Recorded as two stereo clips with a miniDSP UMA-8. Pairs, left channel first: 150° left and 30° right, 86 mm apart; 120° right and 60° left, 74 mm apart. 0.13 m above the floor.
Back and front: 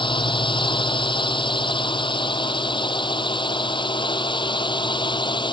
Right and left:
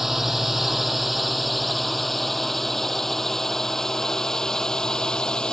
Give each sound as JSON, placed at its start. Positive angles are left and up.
{"t": 0.0, "sound": "a drone", "azimuth_deg": 145}